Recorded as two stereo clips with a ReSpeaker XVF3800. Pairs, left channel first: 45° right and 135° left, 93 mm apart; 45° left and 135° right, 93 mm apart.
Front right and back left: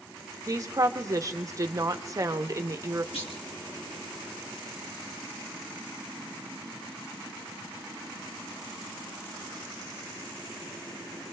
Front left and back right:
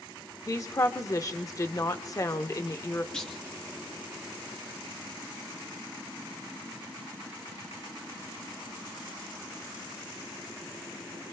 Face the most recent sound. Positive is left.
turn(degrees=-35)